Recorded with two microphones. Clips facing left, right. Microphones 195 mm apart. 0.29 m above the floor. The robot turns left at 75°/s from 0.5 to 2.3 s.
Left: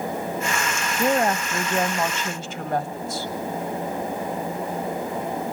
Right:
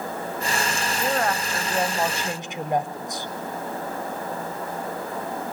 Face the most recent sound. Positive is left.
turn(degrees=-30)